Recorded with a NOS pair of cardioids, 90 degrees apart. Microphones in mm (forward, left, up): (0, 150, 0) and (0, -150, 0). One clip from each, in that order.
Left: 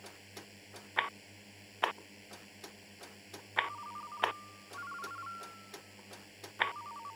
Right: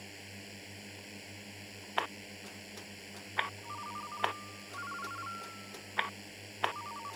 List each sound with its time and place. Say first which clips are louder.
0.0 s a drone: right 3 dB; 55° right
3.6 s a ringtone: even; 20° right